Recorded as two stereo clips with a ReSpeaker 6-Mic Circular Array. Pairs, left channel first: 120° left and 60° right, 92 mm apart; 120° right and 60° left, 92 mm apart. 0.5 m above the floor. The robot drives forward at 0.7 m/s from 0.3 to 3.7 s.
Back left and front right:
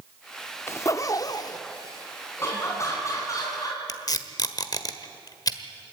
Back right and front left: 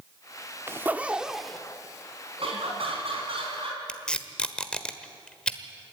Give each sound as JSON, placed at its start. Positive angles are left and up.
{"t": 0.7, "sound": "a zipper", "azimuth_deg": 90, "distance_m": 0.6}
{"t": 2.4, "sound": "laughter", "azimuth_deg": 60, "distance_m": 4.0}
{"t": 3.9, "sound": "tape being pulled", "azimuth_deg": 160, "distance_m": 1.2}